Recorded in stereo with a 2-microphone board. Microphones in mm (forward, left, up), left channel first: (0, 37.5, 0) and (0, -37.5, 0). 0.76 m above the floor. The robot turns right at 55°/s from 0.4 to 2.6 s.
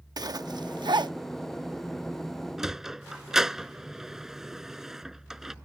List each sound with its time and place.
0.2 s a zipper: 60° right (ahead or behind); by 1.1 s 75° right (ahead or behind)
2.6 s a sliding door: 5° right (ahead or behind)